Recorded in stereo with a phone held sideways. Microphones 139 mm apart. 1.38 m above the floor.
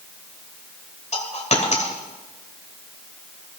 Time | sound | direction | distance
1.1 | a dropped coin | 55° left (ahead or behind) | 2 m